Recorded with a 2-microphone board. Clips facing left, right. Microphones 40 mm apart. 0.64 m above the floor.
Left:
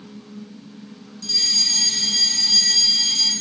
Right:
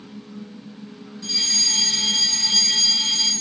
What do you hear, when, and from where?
1.2 s a fire alarm: 20° right (ahead or behind), 4.5 m